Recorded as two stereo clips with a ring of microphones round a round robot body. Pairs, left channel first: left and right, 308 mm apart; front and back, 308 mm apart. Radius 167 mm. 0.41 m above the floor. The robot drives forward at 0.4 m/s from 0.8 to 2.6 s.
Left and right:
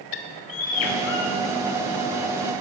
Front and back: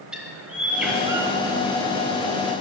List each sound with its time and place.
0.1 s a bird: 95° left, 1.0 m; by 1.4 s 105° left, 1.0 m